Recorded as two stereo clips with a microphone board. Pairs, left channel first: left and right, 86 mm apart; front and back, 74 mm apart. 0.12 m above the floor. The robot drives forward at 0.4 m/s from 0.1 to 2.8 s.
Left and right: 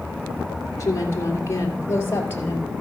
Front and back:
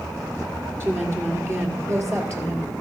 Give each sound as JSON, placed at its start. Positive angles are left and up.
{"t": 0.8, "sound": "a woman speaking", "azimuth_deg": 135, "distance_m": 2.5}